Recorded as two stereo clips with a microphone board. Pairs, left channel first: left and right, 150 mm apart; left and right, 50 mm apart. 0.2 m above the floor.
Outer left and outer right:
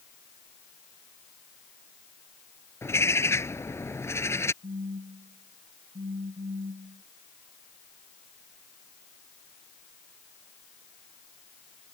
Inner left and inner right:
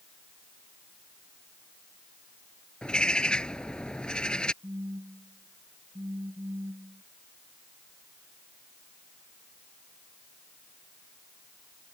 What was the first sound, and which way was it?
A bird, 15° left (ahead or behind).